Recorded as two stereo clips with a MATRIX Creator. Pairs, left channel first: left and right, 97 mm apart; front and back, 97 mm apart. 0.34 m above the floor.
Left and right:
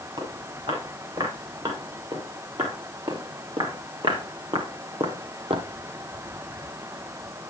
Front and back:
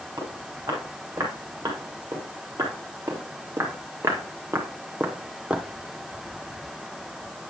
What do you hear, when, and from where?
0.2 s footsteps: 125° right, 5.5 m; by 5.7 s 100° right, 0.8 m